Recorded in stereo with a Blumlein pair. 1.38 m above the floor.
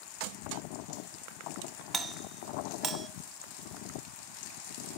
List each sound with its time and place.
1.9 s a doorbell: 25° right, 0.5 m